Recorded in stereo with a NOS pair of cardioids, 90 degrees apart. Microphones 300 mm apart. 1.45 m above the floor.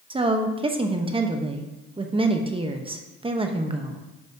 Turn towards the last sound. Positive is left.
turn(degrees=-20)